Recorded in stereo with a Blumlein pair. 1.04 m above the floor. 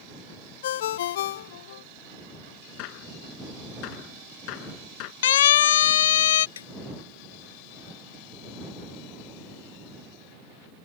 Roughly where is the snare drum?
Ahead left.